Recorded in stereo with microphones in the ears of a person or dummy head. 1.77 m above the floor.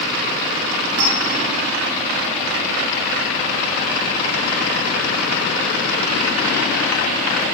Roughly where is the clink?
Right.